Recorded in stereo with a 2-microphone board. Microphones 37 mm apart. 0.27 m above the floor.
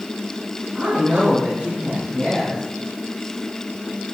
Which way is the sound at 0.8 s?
20° right (ahead or behind).